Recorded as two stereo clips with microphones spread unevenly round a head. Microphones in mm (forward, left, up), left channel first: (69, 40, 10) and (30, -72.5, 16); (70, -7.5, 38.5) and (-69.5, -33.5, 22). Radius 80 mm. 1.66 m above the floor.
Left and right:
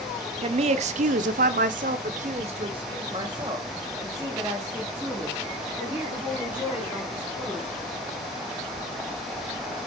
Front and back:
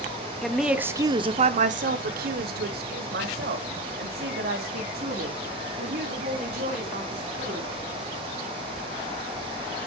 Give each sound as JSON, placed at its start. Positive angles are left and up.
{"t": 0.4, "sound": "a woman speaking", "azimuth_deg": -75, "distance_m": 0.9}